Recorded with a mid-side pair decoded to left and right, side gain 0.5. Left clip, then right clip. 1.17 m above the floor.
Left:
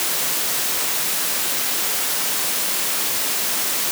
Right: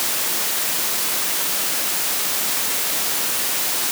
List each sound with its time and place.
Only background noise.